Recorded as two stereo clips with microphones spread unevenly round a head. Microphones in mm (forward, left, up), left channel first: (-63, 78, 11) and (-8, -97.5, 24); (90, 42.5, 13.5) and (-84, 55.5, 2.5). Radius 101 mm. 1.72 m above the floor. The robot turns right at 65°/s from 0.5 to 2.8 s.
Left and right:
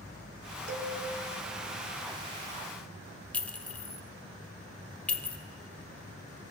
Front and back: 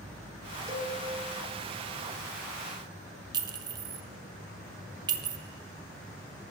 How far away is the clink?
About 0.6 m.